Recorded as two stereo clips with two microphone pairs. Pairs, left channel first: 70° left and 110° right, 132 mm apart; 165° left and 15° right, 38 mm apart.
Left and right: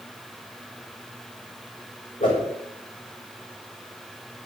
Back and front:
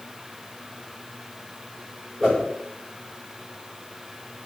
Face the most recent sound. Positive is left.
turn(degrees=80)